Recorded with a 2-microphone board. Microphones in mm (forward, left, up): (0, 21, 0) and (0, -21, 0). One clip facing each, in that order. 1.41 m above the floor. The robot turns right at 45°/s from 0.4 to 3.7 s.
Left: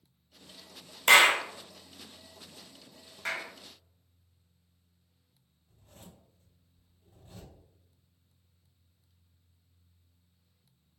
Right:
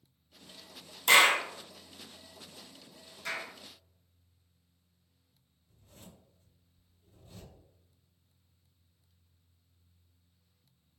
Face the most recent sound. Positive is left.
turn(degrees=55)  # may be behind; listen again after turning